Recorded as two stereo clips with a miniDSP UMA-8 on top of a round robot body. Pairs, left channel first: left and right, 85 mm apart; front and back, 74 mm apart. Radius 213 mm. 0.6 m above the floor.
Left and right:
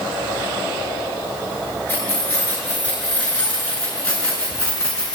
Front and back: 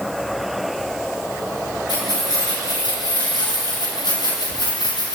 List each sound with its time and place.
1.9 s keys jangling: 15° left, 9.5 m; by 5.2 s 10° left, 6.5 m